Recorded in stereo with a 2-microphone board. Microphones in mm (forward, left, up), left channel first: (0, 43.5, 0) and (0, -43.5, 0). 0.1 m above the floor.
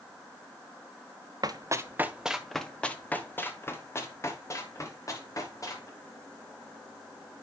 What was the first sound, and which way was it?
Running footsteps, 50° right (ahead or behind).